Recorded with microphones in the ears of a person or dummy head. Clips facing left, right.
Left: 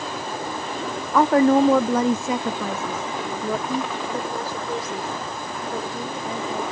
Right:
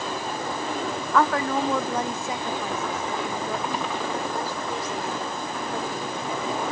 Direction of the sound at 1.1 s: 10° left (ahead or behind).